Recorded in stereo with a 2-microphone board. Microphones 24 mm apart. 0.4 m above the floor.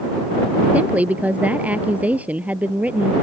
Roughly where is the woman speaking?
Right.